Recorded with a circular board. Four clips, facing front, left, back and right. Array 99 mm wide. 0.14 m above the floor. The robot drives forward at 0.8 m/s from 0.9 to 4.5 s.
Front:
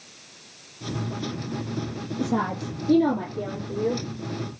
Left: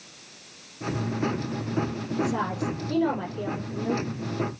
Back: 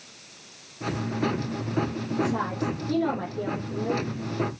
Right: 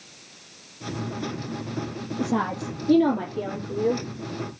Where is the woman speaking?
65° right, 3.5 m; by 4.0 s 90° right, 3 m.